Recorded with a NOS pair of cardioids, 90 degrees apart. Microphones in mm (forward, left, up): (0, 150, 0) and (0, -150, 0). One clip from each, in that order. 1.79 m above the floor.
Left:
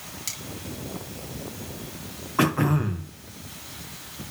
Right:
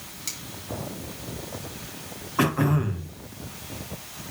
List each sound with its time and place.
0.3 s cutlery clinking: 10° left, 3 m
2.4 s throat clearing: 10° left, 1.6 m